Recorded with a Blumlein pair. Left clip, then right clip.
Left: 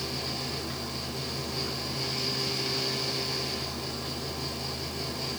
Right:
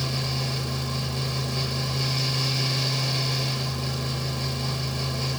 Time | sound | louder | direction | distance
0.0 | a fan | right 4 dB | 10° right | 1.3 m